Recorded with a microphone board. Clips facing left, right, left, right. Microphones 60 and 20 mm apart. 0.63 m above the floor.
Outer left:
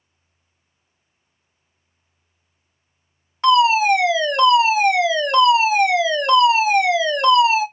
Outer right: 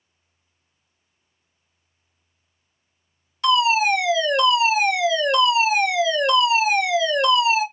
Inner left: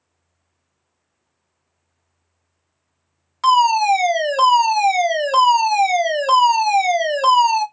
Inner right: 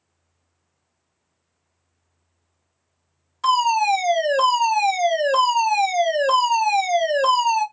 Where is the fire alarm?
40° left (ahead or behind), 2.5 m.